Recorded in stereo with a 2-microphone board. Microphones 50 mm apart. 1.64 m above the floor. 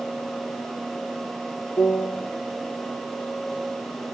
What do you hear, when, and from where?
1.8 s a piano: 75° left (ahead or behind), 1.1 m